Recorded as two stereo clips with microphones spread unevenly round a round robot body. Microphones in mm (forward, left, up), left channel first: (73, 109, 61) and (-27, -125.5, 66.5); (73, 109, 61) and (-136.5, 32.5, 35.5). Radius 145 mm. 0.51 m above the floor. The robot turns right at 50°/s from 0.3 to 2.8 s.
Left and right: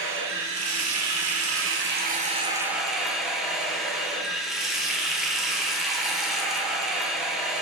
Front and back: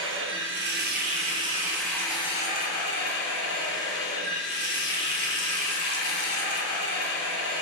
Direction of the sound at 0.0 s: 150° right.